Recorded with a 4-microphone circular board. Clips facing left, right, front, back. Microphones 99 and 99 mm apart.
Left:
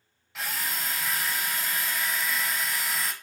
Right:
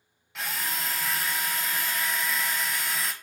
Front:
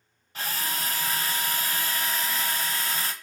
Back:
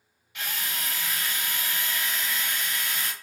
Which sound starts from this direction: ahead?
A drill, at 0.3 s.